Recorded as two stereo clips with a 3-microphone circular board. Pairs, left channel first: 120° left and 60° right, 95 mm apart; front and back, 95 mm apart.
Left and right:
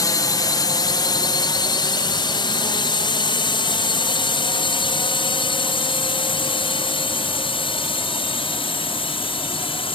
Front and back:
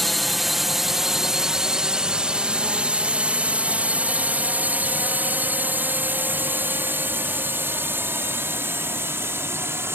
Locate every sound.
0.0 s a drone: 90° left; by 10.0 s 115° left